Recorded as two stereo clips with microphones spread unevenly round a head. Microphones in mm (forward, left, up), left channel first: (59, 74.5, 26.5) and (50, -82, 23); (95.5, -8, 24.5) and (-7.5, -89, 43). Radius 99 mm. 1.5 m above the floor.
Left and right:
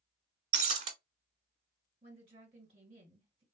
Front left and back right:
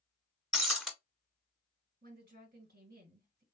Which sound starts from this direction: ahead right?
Breaking glass, at 0.5 s.